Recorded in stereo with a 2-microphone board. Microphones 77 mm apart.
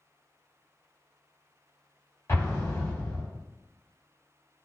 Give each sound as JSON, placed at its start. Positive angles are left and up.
{"t": 2.3, "sound": "an explosion", "side_deg": 35, "distance_m": 1.2}